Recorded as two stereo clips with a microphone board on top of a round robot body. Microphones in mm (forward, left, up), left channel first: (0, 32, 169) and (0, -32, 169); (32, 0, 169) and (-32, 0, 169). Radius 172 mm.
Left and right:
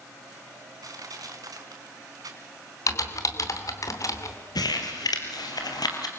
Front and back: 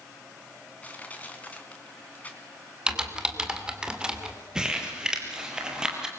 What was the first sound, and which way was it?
Crushing, 70° right.